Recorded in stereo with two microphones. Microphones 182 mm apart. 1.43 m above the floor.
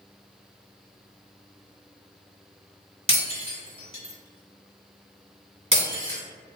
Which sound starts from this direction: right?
Breaking glass, at 3.1 s.